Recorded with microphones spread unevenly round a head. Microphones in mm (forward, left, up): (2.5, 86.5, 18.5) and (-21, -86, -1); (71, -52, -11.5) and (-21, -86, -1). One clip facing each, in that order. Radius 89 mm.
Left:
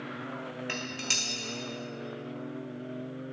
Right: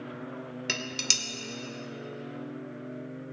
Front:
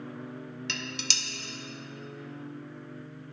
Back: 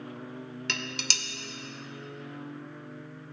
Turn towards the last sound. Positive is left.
turn(degrees=-135)